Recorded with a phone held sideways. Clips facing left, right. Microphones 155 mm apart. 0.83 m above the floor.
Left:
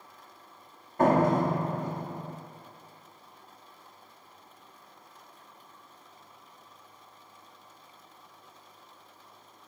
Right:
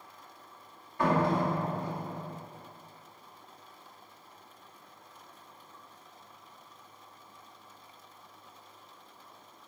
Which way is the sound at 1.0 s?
45° left (ahead or behind).